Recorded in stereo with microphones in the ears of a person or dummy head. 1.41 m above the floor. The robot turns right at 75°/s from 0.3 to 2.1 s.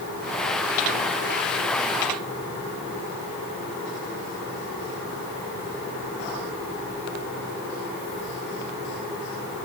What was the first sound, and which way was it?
Only background noise.